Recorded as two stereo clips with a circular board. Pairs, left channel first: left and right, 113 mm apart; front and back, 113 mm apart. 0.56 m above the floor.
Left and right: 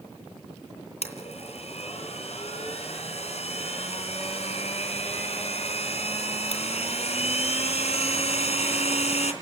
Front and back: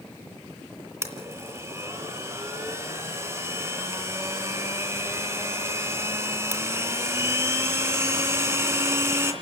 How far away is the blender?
About 3 m.